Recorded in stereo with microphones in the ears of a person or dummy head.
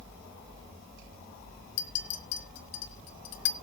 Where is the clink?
65° left (ahead or behind), 1.3 m.